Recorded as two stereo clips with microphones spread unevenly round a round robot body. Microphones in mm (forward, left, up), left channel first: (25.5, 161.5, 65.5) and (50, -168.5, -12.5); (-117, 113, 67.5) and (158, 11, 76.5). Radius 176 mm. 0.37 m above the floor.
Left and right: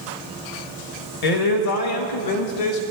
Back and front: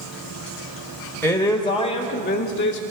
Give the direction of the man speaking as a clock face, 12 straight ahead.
9 o'clock.